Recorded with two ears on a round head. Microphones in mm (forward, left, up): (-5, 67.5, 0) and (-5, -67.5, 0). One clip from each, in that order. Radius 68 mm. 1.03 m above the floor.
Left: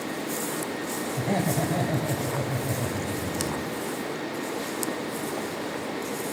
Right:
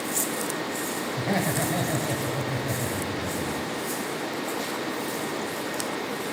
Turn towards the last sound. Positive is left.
turn(degrees=-45)  # may be behind; listen again after turning